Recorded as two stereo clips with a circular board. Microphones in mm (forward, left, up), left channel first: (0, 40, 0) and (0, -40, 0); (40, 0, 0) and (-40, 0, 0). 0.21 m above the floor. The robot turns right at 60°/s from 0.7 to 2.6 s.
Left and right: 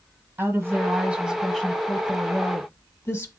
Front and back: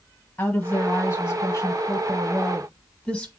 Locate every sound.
0.4 s a woman speaking: 50° right, 1.3 m; by 3.3 s 65° left, 1.3 m